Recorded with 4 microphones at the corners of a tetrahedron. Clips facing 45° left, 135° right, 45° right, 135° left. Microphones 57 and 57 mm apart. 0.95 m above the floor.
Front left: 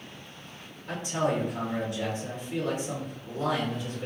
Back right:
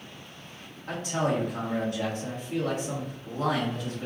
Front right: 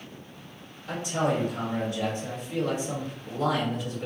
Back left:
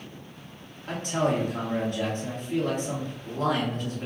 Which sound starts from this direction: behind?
A man speaking, at 0.9 s.